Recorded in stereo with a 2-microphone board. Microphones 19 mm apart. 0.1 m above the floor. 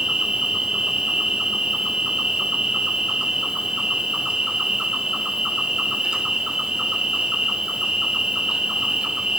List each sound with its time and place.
0.0 s an insect: 50° right (ahead or behind), 1.3 m